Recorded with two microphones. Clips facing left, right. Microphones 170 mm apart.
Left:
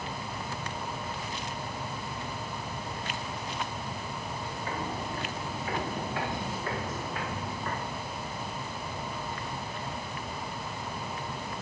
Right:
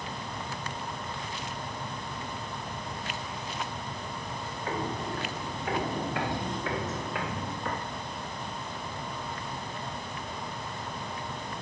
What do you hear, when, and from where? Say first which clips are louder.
4.7 s footsteps: right 3 dB; 60° right (ahead or behind), 3 m; by 7.8 s 85° right, 3.5 m